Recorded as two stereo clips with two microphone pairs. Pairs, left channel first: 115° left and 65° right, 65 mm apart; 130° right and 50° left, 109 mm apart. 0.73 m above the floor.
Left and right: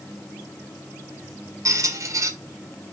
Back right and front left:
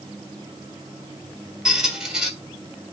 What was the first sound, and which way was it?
A squeak, 35° right.